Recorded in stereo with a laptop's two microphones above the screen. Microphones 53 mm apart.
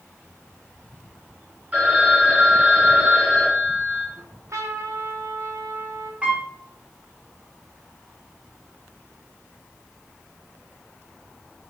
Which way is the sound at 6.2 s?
25° right (ahead or behind).